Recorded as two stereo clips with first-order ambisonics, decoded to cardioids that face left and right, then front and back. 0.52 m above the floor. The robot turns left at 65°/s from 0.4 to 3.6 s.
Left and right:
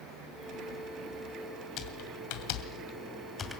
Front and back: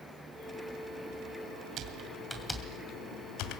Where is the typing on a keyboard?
130° left, 2.5 m; by 3.6 s 10° left, 2.5 m.